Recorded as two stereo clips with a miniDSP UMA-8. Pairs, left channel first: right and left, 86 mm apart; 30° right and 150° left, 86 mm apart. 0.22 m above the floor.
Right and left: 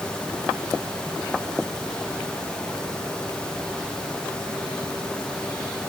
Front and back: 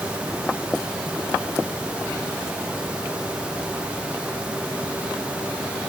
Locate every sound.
Only background noise.